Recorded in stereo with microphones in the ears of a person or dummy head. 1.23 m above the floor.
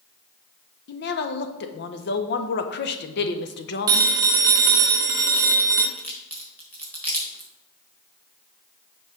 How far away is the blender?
No blender in this recording.